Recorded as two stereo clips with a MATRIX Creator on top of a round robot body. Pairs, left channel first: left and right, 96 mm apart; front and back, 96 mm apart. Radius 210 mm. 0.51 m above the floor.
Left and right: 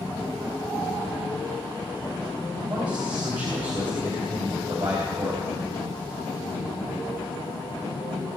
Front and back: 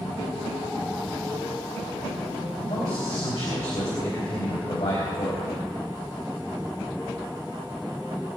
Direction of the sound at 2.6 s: 50° right.